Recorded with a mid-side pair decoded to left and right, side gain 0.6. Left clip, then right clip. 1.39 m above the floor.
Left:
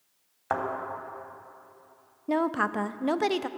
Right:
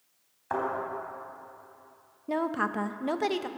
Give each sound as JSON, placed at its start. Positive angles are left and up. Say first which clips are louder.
{"t": 0.5, "sound": "a thud", "louder": "left 1 dB", "azimuth_deg": 50, "distance_m": 3.0}
{"t": 2.3, "sound": "a woman speaking", "louder": "left 3 dB", "azimuth_deg": 20, "distance_m": 0.5}